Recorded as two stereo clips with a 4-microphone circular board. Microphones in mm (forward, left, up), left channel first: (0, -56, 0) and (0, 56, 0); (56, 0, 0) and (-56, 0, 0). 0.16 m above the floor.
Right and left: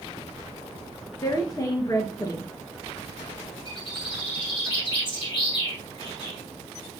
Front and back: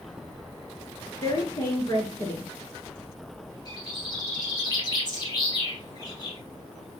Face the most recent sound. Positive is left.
turn(degrees=-50)